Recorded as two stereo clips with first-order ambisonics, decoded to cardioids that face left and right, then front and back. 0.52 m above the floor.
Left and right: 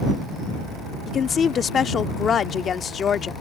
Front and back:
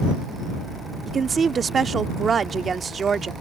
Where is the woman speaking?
130° left.